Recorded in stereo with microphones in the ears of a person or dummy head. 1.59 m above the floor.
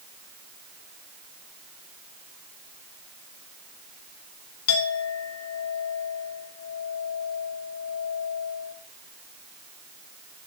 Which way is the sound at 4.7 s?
75° left (ahead or behind).